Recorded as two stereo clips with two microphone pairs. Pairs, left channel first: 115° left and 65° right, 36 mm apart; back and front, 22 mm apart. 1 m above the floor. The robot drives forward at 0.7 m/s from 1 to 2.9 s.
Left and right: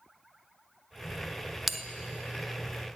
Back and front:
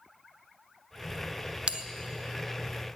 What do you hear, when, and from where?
1.7 s a bell: 15° left, 0.7 m; by 1.8 s 20° left, 0.6 m